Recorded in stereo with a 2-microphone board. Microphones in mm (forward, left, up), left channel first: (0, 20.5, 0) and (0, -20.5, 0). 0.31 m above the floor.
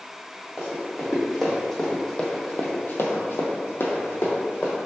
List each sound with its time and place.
0.6 s running footsteps: 5° right (ahead or behind), 1.4 m; by 4.8 s 45° left (ahead or behind), 1.2 m